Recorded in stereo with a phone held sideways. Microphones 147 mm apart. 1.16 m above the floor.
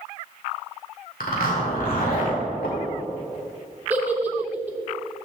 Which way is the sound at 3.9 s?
10° right (ahead or behind).